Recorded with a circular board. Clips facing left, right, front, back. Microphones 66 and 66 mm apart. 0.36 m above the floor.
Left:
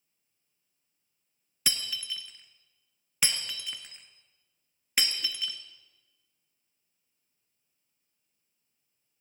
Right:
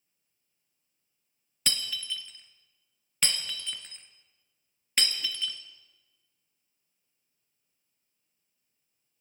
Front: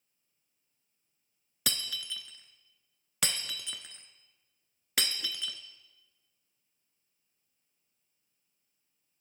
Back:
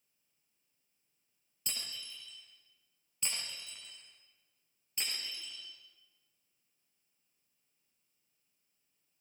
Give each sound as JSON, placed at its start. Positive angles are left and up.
{"t": 1.7, "sound": "breaking glass", "azimuth_deg": 10, "distance_m": 1.9}